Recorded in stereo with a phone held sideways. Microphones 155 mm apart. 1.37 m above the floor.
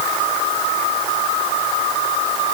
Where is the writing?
No writing in this recording.